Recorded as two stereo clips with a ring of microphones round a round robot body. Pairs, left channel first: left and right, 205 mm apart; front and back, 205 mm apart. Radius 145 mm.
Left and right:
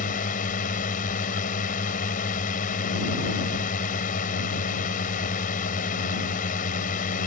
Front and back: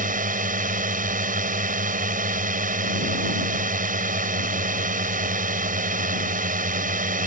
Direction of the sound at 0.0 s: 140° left.